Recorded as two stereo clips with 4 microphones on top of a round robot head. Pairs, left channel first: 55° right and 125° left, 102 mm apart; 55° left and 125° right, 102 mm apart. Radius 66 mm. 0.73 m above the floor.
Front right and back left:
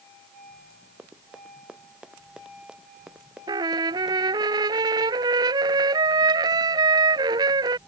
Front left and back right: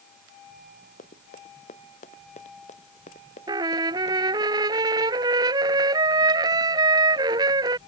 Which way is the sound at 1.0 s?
45° left.